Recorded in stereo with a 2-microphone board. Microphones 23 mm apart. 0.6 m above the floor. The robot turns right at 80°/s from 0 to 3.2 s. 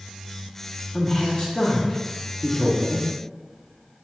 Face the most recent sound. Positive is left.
turn(degrees=-125)